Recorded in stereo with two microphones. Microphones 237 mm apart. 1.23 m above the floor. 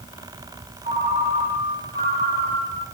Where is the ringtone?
35° right (ahead or behind), 2.5 m.